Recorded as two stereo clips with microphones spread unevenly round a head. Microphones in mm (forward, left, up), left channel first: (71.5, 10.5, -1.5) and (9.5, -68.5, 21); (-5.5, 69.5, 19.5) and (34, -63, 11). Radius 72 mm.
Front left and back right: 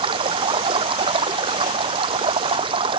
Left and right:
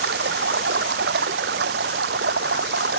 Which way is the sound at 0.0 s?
90° right.